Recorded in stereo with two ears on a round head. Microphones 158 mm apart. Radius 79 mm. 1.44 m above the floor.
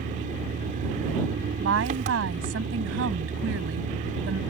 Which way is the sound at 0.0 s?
45° right (ahead or behind).